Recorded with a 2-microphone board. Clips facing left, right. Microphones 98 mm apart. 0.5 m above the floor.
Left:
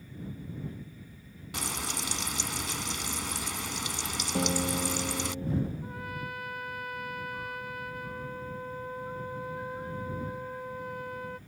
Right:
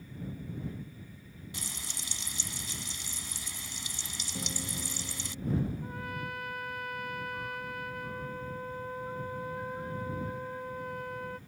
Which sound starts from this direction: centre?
A trumpet, at 5.8 s.